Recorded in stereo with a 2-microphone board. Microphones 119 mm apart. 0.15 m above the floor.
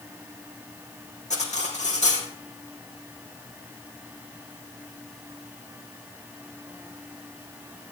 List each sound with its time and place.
1.3 s cutlery clinking: 80° left, 4 m